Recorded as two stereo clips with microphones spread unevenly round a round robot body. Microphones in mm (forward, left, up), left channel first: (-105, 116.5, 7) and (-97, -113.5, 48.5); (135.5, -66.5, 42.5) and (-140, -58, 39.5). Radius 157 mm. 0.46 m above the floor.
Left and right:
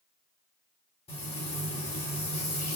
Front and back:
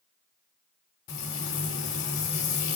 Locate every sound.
1.1 s frying: 25° left, 3 m